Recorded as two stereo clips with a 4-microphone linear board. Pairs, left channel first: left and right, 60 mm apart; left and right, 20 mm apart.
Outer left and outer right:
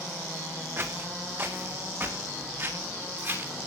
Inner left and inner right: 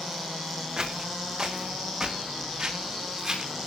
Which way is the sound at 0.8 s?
40° right (ahead or behind).